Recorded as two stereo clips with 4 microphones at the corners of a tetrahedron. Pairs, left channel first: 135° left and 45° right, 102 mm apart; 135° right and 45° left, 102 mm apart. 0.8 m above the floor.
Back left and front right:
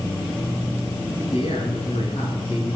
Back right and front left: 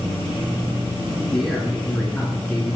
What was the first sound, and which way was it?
A man speaking, 145° left.